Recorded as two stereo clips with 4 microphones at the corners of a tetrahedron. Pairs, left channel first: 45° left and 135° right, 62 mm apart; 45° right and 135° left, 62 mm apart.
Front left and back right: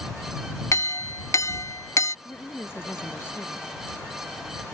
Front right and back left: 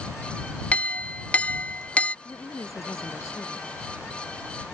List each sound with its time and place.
0.7 s a clink: 15° left
2.2 s a woman speaking: 10° right